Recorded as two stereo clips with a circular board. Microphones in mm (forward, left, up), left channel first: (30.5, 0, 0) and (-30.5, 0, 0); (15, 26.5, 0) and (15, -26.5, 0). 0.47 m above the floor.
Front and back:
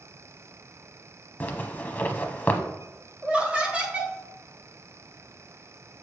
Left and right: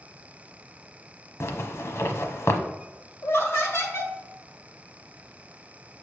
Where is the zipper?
60° left, 0.9 m.